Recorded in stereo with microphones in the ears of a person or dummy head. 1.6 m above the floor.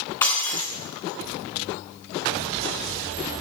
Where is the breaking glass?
15° left (ahead or behind), 2.5 m.